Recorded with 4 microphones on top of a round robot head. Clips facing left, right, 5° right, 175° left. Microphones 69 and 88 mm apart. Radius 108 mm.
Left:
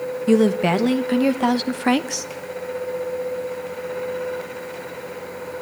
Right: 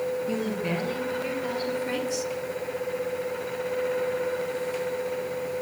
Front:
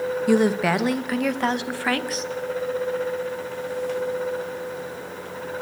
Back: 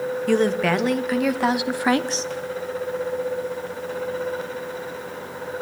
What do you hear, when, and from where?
0.3 s a woman speaking: 75° left, 1.9 m; by 2.3 s 120° left, 0.9 m